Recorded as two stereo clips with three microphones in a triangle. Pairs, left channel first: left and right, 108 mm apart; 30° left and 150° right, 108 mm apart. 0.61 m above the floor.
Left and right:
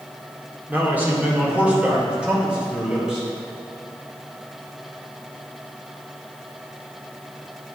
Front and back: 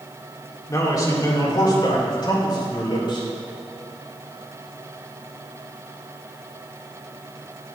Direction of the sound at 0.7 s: 20° right.